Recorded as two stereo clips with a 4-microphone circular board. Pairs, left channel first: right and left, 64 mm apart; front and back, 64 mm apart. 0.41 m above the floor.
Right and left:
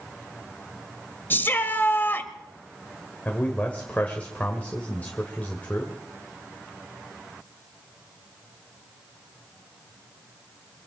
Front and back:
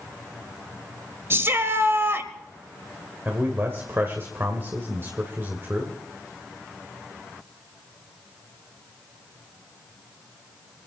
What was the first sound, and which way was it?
A shout, 140° right.